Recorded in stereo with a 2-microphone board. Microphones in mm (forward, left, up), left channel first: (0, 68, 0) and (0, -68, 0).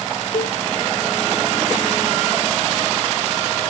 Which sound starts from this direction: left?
A cowbell, at 0.3 s.